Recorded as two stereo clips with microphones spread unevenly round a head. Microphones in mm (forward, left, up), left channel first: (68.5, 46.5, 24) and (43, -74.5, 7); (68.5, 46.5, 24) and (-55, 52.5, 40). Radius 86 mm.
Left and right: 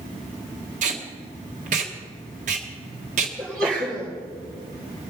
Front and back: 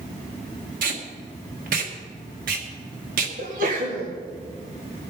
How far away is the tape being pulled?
About 1.6 m.